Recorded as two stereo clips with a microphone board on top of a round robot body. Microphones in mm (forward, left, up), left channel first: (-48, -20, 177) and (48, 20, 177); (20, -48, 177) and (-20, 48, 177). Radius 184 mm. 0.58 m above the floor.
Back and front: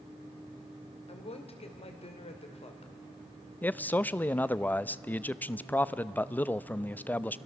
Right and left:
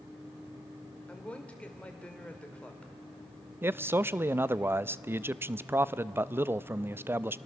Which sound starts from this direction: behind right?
A woman speaking, at 1.1 s.